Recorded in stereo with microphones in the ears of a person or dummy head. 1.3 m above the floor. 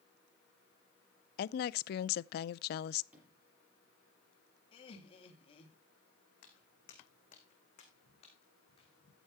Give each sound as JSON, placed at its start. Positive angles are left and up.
{"t": 1.4, "sound": "a woman speaking", "side_deg": 60, "distance_m": 0.5}
{"t": 3.1, "sound": "a sliding door", "side_deg": -5, "distance_m": 6.5}
{"t": 4.7, "sound": "laughter", "side_deg": 35, "distance_m": 2.0}
{"t": 6.4, "sound": "footsteps", "side_deg": 60, "distance_m": 3.5}